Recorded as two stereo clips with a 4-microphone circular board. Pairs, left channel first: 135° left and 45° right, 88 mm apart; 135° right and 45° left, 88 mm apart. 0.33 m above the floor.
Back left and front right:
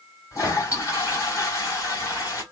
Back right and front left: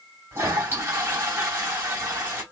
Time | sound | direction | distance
0.3 | a toilet flushing | 95° left | 2.5 m